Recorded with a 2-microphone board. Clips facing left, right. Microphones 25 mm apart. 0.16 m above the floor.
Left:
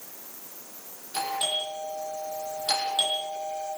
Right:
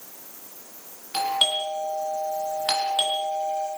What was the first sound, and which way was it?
A doorbell, 70° right (ahead or behind).